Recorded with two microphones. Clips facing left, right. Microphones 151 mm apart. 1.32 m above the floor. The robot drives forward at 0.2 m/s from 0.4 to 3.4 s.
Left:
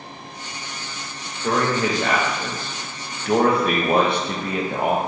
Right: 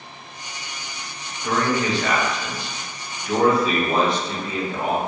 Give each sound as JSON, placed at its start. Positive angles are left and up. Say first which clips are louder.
{"t": 1.4, "sound": "a man speaking", "louder": "left 1 dB", "side_deg": 40, "distance_m": 0.7}